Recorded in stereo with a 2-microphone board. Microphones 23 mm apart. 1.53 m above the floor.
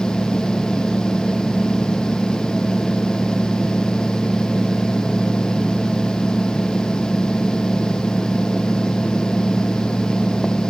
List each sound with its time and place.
0.0 s an engine running: 40° left (ahead or behind)